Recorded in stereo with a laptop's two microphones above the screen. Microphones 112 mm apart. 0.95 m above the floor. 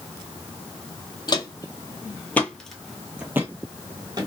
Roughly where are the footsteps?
Left.